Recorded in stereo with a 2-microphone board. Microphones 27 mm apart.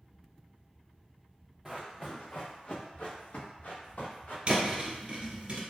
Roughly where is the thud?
Right.